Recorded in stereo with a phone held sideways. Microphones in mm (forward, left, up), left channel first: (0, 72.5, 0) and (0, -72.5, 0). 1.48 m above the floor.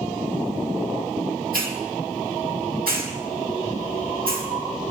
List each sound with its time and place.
1.5 s a hiss: 85° right, 3 m